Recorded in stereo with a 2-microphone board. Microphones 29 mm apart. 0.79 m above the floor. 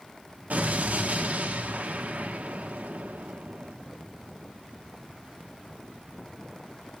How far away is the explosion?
About 1.2 m.